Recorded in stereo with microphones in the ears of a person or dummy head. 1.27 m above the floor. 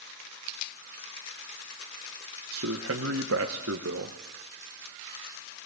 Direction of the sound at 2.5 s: 65° right (ahead or behind).